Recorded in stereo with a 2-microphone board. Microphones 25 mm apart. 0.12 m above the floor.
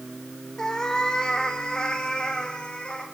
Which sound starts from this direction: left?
A cat meowing, at 0.6 s.